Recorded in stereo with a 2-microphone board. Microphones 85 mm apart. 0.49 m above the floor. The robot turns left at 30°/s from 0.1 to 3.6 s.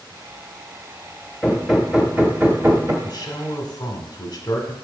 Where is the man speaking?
45° left (ahead or behind), 1.4 m; by 4.7 s 50° left (ahead or behind), 1.4 m.